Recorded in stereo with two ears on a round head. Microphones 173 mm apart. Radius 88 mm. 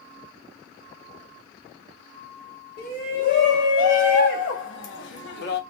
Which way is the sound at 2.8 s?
50° left (ahead or behind).